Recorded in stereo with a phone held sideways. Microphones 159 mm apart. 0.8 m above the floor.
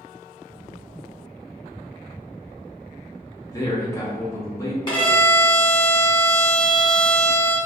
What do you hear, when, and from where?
3.5 s a man speaking: 20° left (ahead or behind), 1.1 m
4.9 s a violin: 30° left (ahead or behind), 1.7 m